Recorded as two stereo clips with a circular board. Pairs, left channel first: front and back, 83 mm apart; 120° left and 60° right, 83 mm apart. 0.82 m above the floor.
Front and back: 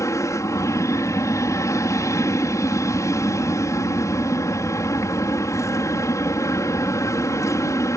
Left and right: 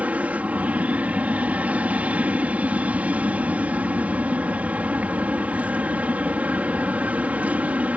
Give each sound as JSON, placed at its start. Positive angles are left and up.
{"t": 0.0, "sound": "an aircraft", "azimuth_deg": 5}